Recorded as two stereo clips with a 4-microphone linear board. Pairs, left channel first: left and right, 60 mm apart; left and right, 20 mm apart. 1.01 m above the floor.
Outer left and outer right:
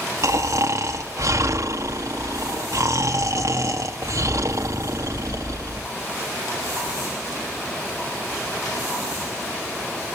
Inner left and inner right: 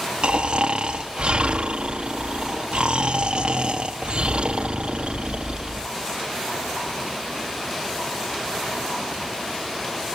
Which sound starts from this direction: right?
Snoring, at 0.2 s.